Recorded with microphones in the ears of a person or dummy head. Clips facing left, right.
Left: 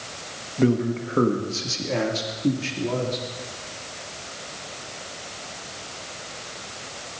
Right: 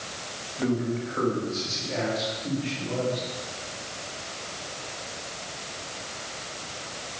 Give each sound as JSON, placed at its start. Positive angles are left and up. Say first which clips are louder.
{"t": 0.6, "sound": "a man speaking", "louder": "left 5 dB", "side_deg": 45, "distance_m": 2.5}